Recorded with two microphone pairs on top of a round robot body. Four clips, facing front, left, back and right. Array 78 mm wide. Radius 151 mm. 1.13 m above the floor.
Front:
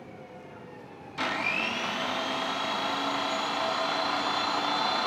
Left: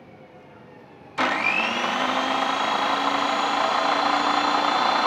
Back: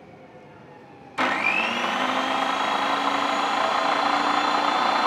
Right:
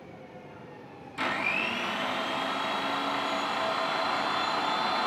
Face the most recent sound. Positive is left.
turn(degrees=130)